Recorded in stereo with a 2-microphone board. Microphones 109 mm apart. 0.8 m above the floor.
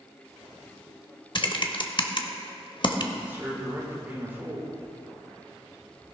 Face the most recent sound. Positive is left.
turn(degrees=-20)  # may be behind; listen again after turning